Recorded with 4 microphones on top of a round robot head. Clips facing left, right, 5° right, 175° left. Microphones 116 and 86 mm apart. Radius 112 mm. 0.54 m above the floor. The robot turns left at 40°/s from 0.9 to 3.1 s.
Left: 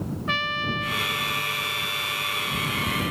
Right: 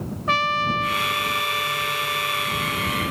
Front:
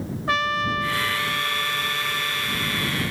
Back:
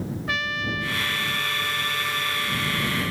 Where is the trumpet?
50° right; by 3.1 s 140° right.